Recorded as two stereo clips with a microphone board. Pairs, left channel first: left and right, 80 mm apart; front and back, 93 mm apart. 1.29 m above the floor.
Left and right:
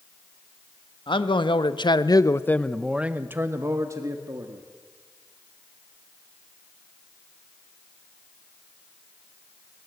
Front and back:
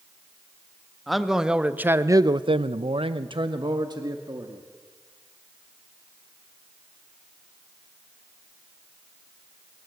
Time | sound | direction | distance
1.1 | a man speaking | 90° left | 1.7 m